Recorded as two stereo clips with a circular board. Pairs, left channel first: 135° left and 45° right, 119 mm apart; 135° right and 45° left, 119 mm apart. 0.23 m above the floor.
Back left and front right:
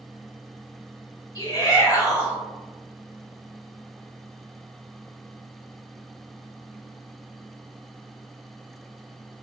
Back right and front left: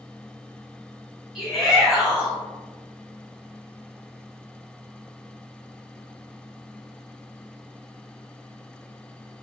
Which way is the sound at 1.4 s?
125° left.